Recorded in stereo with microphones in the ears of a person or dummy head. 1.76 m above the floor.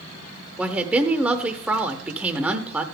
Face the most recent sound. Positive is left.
turn(degrees=-5)  # may be behind; listen again after turning